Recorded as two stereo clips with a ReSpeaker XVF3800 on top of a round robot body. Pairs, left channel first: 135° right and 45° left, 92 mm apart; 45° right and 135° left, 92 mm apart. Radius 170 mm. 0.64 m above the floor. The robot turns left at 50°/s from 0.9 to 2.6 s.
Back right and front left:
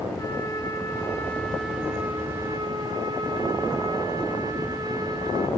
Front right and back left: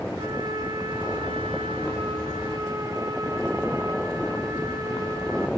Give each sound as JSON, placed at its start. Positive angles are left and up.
{"t": 0.2, "sound": "a trumpet", "azimuth_deg": 175, "distance_m": 2.5}